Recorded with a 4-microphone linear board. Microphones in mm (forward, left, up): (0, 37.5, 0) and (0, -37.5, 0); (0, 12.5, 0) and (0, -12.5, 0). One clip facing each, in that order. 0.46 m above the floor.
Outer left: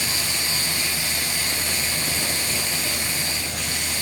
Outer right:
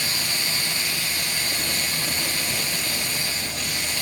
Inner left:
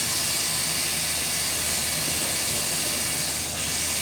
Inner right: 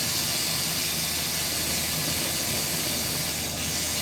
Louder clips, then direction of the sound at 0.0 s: Outer left 1 dB, inner left 1 dB; 85° left.